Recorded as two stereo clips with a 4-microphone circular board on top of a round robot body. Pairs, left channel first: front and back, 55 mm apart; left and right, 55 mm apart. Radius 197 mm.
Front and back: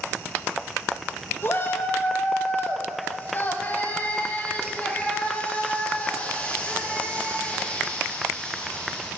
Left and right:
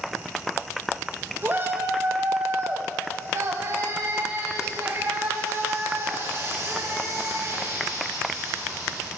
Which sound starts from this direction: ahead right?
A shout, at 1.4 s.